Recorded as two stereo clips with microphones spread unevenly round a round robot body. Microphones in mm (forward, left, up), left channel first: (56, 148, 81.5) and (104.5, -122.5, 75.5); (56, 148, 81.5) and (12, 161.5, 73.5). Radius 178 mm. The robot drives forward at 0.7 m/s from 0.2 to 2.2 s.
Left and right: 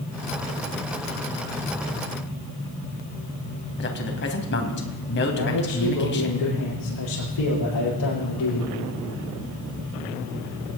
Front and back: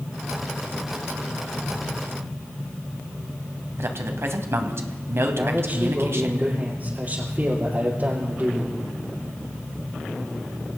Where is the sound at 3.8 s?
150° left, 2.5 m.